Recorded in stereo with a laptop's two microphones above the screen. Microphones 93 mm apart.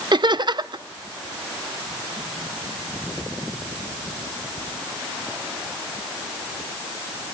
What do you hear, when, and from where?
0.1 s laughter: 50° right (ahead or behind), 0.9 m